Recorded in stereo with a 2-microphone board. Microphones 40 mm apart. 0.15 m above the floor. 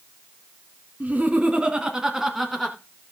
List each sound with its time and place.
1.0 s laughter: 40° right (ahead or behind), 1.6 m; by 2.8 s 5° left (ahead or behind), 1.7 m